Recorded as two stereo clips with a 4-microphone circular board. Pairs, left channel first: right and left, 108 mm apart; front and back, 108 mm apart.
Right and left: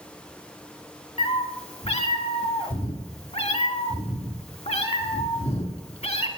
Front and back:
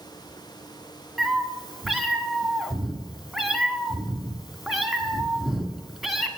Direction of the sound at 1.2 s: 90° right.